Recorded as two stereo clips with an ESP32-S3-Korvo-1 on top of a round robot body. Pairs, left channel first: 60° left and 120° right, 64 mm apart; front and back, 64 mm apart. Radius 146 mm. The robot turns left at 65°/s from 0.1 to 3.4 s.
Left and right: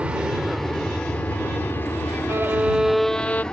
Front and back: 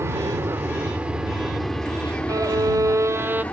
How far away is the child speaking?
No child speaking in this recording.